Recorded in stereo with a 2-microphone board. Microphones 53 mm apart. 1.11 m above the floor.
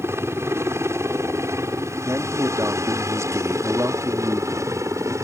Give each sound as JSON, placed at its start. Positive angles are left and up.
{"t": 0.0, "sound": "a helicopter", "side_deg": -55}
{"t": 2.0, "sound": "a man speaking", "side_deg": -75}